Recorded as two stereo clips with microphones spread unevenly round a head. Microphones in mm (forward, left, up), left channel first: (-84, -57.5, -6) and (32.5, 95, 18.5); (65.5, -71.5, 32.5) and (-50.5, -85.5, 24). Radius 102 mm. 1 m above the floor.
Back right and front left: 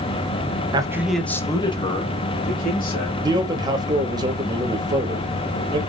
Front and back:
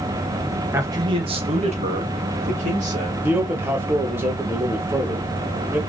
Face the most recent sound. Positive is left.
turn(degrees=125)